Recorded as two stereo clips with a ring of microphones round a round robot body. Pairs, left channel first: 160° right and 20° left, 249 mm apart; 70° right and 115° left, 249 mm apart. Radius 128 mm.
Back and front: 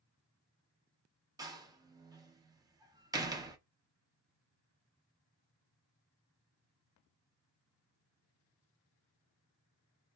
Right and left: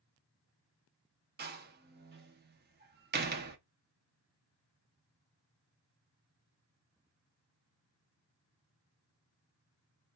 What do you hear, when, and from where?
1.4 s a door slam: 90° left, 0.7 m